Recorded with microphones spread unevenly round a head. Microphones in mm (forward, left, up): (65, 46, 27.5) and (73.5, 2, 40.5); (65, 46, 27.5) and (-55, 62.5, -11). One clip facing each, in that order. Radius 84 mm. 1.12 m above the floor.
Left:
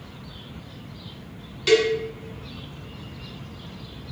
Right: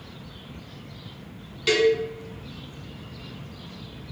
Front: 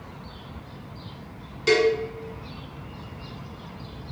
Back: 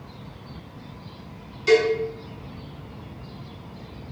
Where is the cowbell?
5° left, 1.4 m.